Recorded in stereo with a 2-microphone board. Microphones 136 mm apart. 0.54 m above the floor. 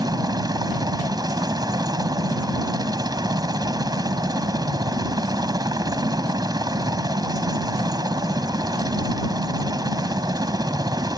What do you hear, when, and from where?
0.0 s a helicopter: 25° right (ahead or behind)